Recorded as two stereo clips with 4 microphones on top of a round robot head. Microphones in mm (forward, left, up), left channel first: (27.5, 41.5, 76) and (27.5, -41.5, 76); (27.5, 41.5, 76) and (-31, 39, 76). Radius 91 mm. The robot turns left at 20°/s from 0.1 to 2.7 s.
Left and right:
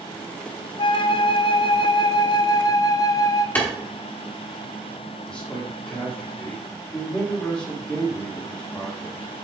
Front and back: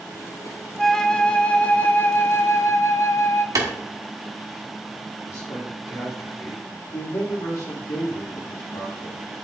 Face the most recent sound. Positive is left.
turn(degrees=20)